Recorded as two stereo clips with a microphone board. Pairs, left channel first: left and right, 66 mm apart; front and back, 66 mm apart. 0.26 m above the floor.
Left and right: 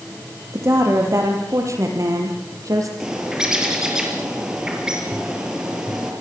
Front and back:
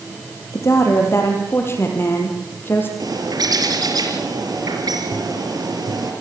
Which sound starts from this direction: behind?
A bird, at 3.0 s.